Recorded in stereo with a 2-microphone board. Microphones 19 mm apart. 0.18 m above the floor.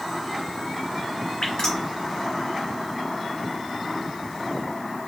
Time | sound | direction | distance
1.4 | dripping | 55° left (ahead or behind) | 2 m